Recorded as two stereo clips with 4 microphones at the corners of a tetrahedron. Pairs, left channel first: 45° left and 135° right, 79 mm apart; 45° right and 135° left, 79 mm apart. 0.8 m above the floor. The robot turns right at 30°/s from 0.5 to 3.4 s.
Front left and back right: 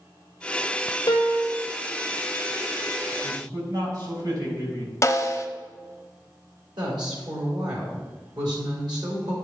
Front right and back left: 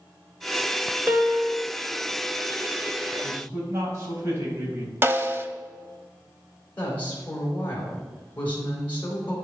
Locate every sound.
1.1 s a piano: 75° left, 1.3 m; by 1.6 s 90° left, 1.3 m
3.2 s a man speaking: straight behind, 4 m; by 4.9 s 175° right, 4 m
5.0 s a snare drum: 85° left, 0.8 m
6.8 s a woman speaking: 115° right, 2.5 m